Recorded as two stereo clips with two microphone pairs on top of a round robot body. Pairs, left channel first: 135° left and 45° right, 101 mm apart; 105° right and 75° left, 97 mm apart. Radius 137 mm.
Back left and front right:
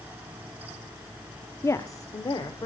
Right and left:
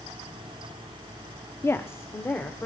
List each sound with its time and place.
1.6 s a woman speaking: 170° right, 0.9 m; by 2.7 s 175° right, 1.9 m